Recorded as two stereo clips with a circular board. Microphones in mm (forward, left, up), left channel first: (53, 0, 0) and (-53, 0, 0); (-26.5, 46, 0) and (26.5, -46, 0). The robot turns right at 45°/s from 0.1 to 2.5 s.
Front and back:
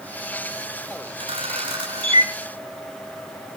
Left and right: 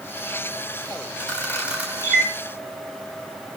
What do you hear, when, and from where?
1.2 s a camera shutter: 165° right, 2.5 m; by 2.3 s 115° right, 2.5 m